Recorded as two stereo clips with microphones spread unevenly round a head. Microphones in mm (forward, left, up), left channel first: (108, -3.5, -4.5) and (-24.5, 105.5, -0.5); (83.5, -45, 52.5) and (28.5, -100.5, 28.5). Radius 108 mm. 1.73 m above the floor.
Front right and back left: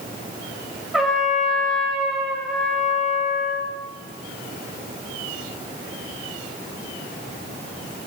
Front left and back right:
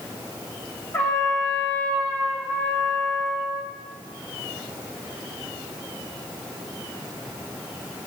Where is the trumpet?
55° left, 1.2 m.